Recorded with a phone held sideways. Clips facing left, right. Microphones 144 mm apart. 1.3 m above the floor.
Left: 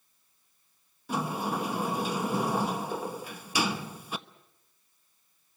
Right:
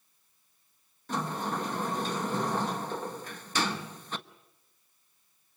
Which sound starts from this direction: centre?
A sliding door, at 1.1 s.